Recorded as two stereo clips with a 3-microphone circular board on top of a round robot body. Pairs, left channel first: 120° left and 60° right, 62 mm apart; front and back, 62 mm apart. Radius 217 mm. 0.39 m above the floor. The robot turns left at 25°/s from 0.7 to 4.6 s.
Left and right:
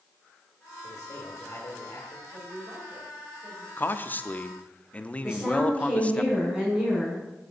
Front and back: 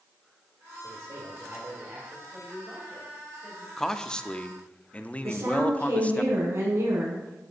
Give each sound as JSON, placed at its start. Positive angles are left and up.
{"t": 0.8, "sound": "a man speaking", "azimuth_deg": 145, "distance_m": 2.5}
{"t": 2.3, "sound": "a woman speaking", "azimuth_deg": -60, "distance_m": 4.0}
{"t": 3.8, "sound": "a man speaking", "azimuth_deg": 80, "distance_m": 1.0}
{"t": 5.2, "sound": "a woman speaking", "azimuth_deg": -135, "distance_m": 5.5}